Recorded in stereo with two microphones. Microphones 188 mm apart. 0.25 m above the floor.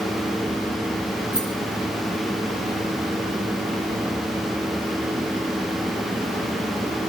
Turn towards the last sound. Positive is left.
turn(degrees=60)  # may be behind; listen again after turning